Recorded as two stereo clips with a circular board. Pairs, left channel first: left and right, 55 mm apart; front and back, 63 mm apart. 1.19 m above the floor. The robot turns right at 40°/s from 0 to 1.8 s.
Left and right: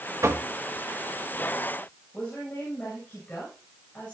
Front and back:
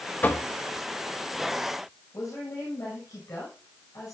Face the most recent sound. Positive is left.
turn(degrees=25)